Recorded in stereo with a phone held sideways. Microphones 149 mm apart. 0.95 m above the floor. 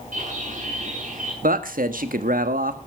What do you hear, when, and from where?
0.1 s a bird: 60° right (ahead or behind), 7 m
1.4 s a man speaking: 80° right, 1.3 m